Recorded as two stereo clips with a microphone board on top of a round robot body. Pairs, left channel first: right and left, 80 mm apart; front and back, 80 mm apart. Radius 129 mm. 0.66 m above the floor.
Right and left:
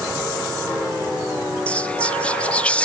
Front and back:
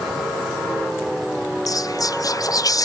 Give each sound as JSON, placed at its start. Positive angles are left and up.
{"t": 1.7, "sound": "whispering", "azimuth_deg": -20, "distance_m": 1.0}